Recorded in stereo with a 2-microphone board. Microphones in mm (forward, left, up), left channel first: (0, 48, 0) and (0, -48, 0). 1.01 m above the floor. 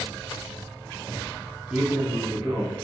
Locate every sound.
1.7 s a man speaking: 10° right (ahead or behind), 0.8 m; by 2.7 s 45° right (ahead or behind), 1.6 m